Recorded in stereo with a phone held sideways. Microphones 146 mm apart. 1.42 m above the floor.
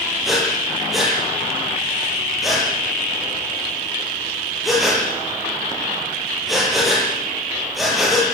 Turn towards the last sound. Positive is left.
turn(degrees=0)  # may be behind; listen again after turning